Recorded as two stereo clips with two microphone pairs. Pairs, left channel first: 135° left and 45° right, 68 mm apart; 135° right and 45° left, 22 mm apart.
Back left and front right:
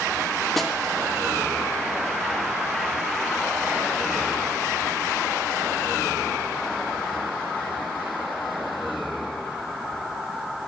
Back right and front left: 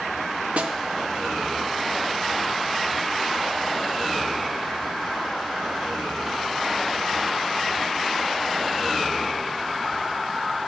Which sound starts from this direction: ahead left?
A snare drum, at 0.6 s.